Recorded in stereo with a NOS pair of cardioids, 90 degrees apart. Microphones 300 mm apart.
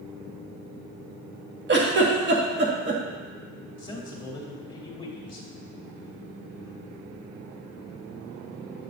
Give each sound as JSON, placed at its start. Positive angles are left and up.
{"t": 1.7, "sound": "a giggle", "azimuth_deg": -40, "distance_m": 1.6}
{"t": 3.8, "sound": "a man speaking", "azimuth_deg": 15, "distance_m": 3.0}